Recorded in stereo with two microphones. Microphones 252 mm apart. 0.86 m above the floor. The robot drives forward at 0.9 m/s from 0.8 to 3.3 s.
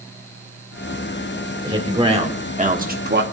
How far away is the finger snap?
I don't hear a finger snap.